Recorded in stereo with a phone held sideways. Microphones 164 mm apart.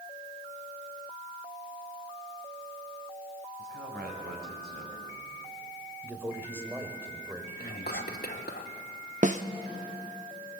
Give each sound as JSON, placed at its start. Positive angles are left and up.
{"t": 3.6, "sound": "a man speaking", "side_deg": -85, "distance_m": 4.5}
{"t": 6.0, "sound": "a man speaking", "side_deg": -10, "distance_m": 3.0}
{"t": 7.6, "sound": "whispering", "side_deg": 75, "distance_m": 2.5}
{"t": 9.2, "sound": "a snare drum", "side_deg": -50, "distance_m": 0.8}